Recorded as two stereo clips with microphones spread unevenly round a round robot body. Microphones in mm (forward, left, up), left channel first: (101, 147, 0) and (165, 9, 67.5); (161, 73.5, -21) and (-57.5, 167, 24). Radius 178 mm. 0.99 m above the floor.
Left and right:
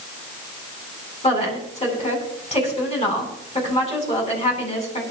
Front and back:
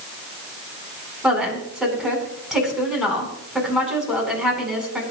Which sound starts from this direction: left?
A woman speaking, at 1.2 s.